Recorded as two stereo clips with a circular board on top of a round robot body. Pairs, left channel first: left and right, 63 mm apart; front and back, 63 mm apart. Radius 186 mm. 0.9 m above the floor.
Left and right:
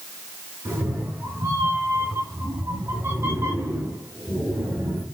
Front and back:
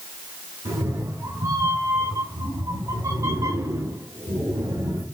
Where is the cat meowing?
140° right, 6 m.